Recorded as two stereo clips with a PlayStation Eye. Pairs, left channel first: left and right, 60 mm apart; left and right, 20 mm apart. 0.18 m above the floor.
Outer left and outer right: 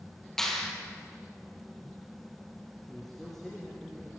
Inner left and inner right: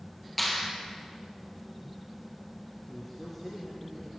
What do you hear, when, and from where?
0.4 s a clap: 5° left (ahead or behind), 3.5 m
2.9 s a man speaking: 5° left (ahead or behind), 5 m